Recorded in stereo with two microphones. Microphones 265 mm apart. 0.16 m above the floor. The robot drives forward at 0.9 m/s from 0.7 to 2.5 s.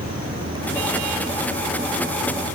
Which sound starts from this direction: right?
An insect, at 0.0 s.